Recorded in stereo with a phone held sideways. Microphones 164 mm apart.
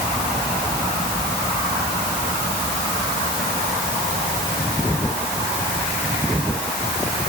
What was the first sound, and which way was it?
Only background noise.